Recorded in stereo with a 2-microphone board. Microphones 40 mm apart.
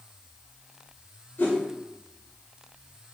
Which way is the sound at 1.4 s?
55° left (ahead or behind).